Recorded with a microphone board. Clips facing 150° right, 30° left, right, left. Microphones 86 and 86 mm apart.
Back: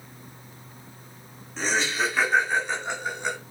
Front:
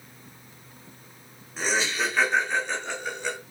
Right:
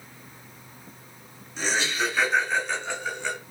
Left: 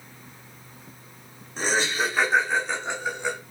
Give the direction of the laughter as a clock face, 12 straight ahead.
8 o'clock.